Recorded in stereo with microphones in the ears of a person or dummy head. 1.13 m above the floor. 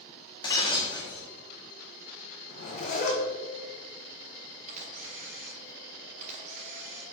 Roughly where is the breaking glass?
Left.